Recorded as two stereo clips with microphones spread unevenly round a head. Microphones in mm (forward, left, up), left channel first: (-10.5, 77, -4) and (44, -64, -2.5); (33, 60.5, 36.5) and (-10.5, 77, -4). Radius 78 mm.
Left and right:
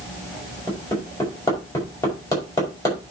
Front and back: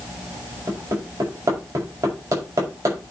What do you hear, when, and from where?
0.7 s hammering: 175° right, 6.5 m